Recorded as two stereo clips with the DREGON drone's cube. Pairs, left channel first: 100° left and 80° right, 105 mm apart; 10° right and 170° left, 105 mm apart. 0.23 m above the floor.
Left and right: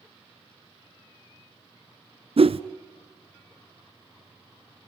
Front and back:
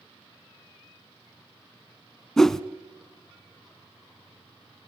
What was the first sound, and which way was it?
A whoosh, 95° right.